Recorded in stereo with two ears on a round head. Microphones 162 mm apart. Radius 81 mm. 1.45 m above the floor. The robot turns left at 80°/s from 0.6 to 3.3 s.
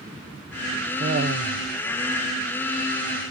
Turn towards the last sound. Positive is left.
turn(degrees=105)